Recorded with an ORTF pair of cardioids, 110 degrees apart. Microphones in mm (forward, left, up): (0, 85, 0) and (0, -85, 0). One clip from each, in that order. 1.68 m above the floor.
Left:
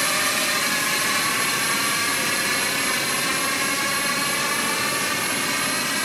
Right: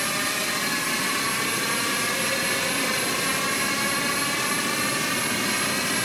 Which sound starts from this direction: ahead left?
A drone, at 0.0 s.